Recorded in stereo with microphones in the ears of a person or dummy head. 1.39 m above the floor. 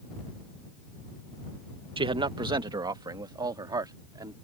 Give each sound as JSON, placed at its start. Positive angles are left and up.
{"t": 2.0, "sound": "a man speaking", "side_deg": -25}